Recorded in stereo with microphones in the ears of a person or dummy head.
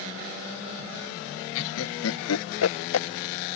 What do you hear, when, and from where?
1.6 s laughter: 75° left (ahead or behind)